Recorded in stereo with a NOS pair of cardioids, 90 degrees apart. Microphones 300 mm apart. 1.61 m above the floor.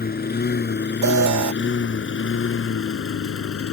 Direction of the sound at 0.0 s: 30° left.